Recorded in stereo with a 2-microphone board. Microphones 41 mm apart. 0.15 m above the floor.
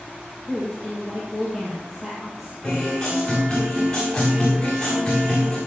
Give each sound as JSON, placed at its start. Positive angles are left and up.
{"t": 0.5, "sound": "a woman speaking", "side_deg": -5, "distance_m": 4.5}
{"t": 2.6, "sound": "a guitar", "side_deg": 10, "distance_m": 8.0}